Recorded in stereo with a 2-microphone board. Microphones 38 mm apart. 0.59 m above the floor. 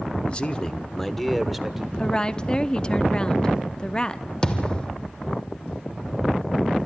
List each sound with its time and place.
0.3 s a man speaking: 30° left (ahead or behind), 1.3 m; by 1.9 s 5° right (ahead or behind), 1.8 m
2.0 s a woman speaking: 25° left (ahead or behind), 0.6 m
4.4 s a thud: 25° left (ahead or behind), 1.8 m